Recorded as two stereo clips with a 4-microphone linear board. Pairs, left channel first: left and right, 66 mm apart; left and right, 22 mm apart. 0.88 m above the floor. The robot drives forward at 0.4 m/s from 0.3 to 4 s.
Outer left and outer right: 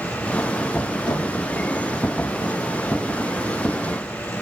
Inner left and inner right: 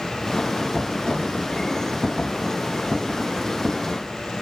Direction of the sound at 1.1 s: 75° left (ahead or behind).